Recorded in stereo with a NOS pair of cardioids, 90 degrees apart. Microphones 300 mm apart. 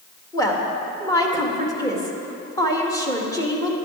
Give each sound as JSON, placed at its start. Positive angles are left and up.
{"t": 0.3, "sound": "a woman speaking", "azimuth_deg": 10, "distance_m": 2.0}